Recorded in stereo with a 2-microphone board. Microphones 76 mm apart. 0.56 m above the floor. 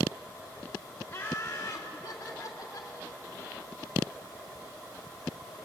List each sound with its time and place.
1.1 s laughter: 25° left (ahead or behind), 1.4 m; by 2.9 s 50° left (ahead or behind), 2 m